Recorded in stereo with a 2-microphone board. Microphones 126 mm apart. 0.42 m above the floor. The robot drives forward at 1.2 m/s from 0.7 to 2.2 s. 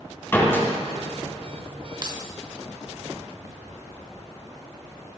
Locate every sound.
0.3 s a door slam: 20° left (ahead or behind), 3 m
2.0 s keys jangling: 35° right (ahead or behind), 0.9 m